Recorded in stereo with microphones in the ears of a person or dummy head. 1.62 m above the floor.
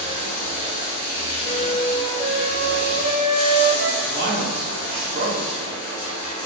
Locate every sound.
0.0 s running water: 70° left (ahead or behind), 1.4 m
1.4 s a flute: 50° right (ahead or behind), 0.6 m
4.0 s a man speaking: 55° right (ahead or behind), 0.9 m